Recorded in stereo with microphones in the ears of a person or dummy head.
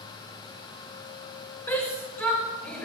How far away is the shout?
About 8 m.